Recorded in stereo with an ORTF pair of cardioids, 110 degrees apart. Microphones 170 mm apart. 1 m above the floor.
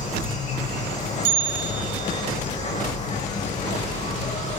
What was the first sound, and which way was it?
An insect, 45° left.